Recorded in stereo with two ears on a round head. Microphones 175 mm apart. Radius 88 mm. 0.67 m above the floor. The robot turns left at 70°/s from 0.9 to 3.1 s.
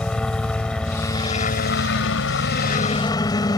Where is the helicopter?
175° left; by 3.6 s 20° left.